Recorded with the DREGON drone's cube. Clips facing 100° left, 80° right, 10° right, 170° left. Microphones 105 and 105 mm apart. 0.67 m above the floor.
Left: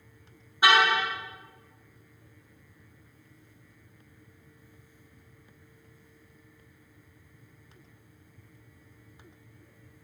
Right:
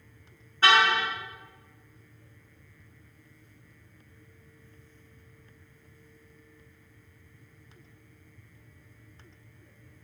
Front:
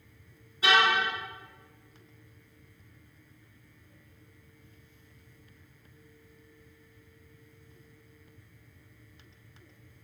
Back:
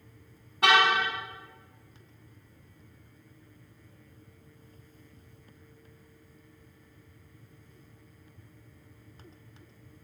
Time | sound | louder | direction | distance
0.6 | a car horn | even, back 2 dB | straight behind | 4 m